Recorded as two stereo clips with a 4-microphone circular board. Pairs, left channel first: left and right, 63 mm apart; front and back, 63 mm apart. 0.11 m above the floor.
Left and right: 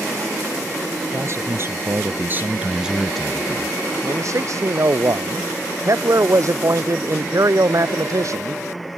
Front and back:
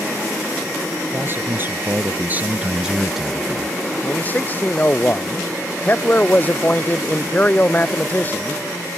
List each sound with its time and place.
1.1 s a man speaking: 130° right; by 3.8 s 60° left
4.0 s a man speaking: 60° right